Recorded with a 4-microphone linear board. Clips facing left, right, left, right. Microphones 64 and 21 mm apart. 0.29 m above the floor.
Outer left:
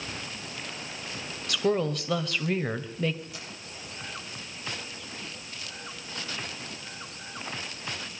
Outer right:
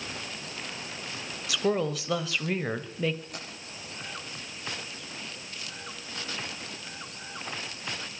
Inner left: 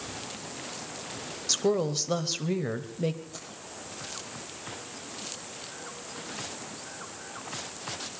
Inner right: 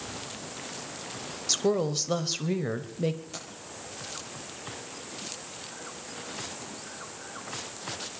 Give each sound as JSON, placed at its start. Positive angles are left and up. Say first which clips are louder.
{"t": 1.5, "sound": "a woman speaking", "louder": "outer left 1 dB, even", "side_deg": 0, "distance_m": 1.0}
{"t": 3.3, "sound": "keys jangling", "louder": "outer right 2 dB, inner right 3 dB", "side_deg": -50, "distance_m": 6.0}